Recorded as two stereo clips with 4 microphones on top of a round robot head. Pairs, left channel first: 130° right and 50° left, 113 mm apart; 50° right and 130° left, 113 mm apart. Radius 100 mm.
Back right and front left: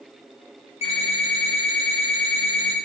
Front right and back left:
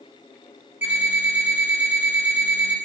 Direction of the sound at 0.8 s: 160° right.